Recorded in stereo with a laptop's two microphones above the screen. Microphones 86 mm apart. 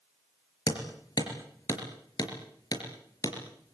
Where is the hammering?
50° left (ahead or behind), 4.5 m.